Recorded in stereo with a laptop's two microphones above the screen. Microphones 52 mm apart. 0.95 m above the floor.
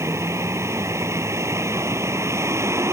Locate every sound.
0.0 s a vehicle: 75° right (ahead or behind)